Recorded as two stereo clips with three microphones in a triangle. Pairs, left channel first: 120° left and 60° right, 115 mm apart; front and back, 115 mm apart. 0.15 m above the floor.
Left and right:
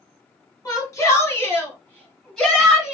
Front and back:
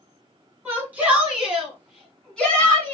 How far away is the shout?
About 1.8 m.